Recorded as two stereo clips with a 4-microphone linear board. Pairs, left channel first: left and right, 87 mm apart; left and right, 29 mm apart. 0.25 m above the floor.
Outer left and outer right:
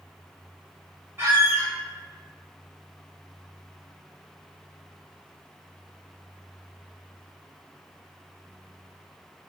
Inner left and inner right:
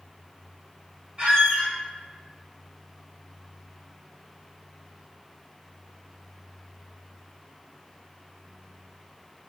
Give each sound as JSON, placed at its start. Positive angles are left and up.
{"t": 1.2, "sound": "a squeak", "side_deg": -30, "distance_m": 1.0}